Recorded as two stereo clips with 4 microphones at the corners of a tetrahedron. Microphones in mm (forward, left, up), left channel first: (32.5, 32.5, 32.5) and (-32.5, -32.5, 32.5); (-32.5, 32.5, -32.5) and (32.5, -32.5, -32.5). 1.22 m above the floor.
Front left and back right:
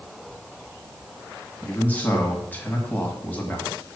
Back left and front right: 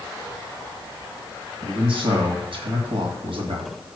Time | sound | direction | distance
1.6 | a man speaking | 25° right | 1.6 m